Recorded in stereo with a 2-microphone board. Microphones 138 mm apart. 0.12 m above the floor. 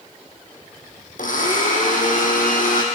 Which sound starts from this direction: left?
A blender, at 1.2 s.